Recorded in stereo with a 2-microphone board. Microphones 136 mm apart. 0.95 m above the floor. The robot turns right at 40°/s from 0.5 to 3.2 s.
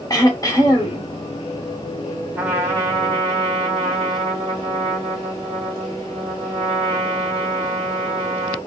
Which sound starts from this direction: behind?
A trumpet, at 2.3 s.